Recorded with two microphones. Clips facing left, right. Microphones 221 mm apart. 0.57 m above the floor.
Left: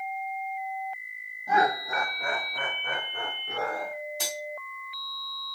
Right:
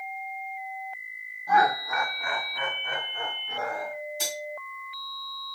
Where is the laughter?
20° left (ahead or behind), 1.0 m; by 3.9 s 55° left (ahead or behind), 1.3 m.